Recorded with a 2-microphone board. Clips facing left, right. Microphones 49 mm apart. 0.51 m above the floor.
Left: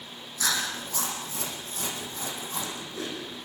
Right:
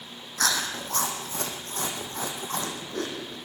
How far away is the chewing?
About 6 m.